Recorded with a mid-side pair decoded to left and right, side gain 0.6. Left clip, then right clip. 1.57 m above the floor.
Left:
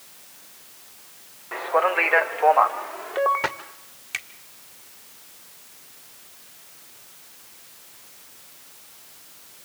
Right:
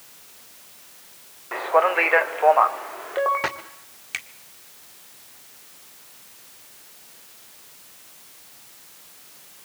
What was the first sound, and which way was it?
A man speaking, 15° right.